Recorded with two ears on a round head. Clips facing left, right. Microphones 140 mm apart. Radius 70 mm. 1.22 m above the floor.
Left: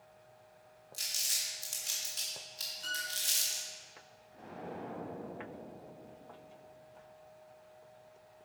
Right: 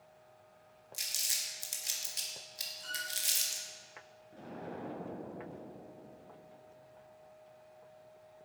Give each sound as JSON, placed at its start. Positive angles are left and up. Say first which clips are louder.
{"t": 0.9, "sound": "crumpling", "louder": "even", "side_deg": -20, "distance_m": 1.6}
{"t": 2.8, "sound": "a violin", "louder": "left 2 dB", "side_deg": 50, "distance_m": 1.9}
{"t": 4.3, "sound": "an explosion", "louder": "even", "side_deg": -70, "distance_m": 3.0}